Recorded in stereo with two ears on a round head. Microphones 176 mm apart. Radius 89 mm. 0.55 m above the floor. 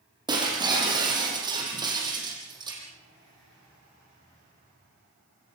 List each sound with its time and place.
0.3 s breaking glass: 20° right (ahead or behind), 7 m